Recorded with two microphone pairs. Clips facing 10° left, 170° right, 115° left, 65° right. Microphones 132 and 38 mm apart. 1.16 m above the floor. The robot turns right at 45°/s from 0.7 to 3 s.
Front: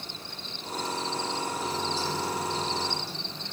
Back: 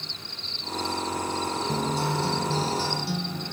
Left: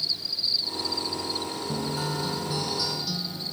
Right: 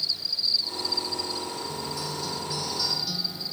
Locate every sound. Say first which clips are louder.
0.0 s an insect: front 1 dB, even; 55° left; by 3.5 s 155° left
1.7 s a guitar: back 4 dB, left 3 dB; 150° left; by 3.5 s 155° right